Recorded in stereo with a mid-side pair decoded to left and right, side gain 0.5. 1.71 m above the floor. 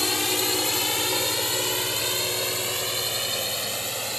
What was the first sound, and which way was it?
A drone, 10° left.